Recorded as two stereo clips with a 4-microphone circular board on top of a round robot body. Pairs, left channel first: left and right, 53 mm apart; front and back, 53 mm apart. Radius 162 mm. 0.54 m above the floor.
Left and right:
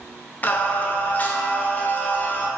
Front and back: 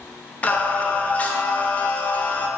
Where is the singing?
50° left, 1.2 m.